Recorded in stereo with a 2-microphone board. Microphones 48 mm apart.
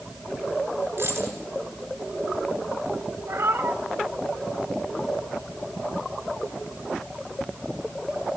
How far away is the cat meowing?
About 1.7 m.